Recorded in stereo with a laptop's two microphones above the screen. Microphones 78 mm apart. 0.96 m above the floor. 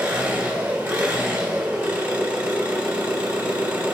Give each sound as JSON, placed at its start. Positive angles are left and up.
{"t": 0.0, "sound": "an engine running", "side_deg": -25, "distance_m": 1.5}